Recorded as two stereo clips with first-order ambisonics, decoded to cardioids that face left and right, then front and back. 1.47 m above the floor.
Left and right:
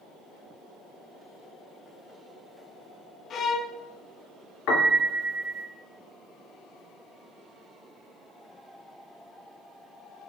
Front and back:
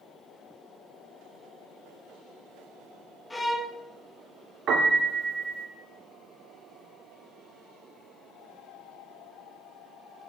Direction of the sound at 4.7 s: 125° left.